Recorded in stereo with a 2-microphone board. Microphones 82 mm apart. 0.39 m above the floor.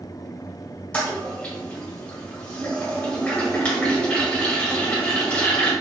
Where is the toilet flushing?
15° left (ahead or behind), 1.2 m.